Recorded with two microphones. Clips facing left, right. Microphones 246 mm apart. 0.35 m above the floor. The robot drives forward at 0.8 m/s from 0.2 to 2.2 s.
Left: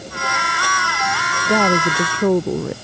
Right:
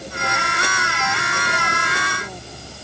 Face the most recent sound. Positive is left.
turn(degrees=85)